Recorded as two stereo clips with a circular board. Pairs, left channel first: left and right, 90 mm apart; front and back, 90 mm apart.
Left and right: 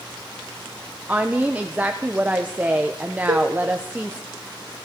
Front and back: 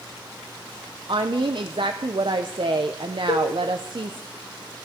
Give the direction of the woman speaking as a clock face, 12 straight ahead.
5 o'clock.